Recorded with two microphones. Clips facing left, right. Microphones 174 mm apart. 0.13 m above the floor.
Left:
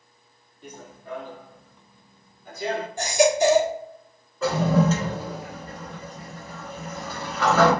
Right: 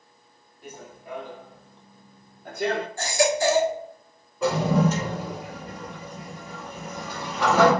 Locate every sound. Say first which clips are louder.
0.6 s running footsteps: even; 5° right (ahead or behind), 1.3 m; by 2.9 s 75° right (ahead or behind), 0.8 m
3.0 s a baby crying: left 5 dB; 20° left (ahead or behind), 0.8 m
4.4 s a toilet flushing: left 1 dB; 15° right (ahead or behind), 1.5 m